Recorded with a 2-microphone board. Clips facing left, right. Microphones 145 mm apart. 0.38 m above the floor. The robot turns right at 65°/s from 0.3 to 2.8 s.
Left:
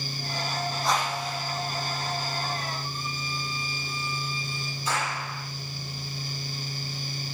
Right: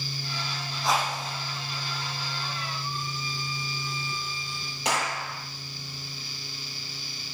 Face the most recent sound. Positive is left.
turn(degrees=-80)